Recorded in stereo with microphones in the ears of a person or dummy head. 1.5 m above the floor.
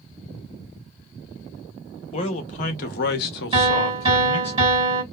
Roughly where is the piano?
Right.